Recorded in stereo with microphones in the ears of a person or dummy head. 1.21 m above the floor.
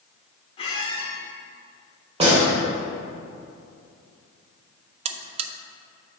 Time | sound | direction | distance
0.6 | a squeak | 40° left (ahead or behind) | 1.4 m
2.2 | a gunshot | 30° right (ahead or behind) | 2 m
5.0 | a buzzer | 40° right (ahead or behind) | 0.5 m